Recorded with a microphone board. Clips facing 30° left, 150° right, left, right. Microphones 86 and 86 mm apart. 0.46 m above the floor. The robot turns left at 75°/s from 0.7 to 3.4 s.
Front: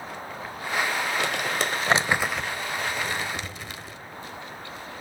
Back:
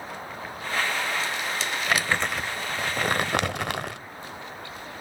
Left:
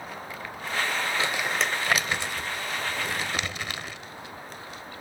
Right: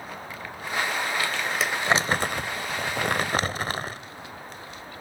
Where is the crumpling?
25° left, 0.9 m; by 4.0 s 140° right, 0.9 m.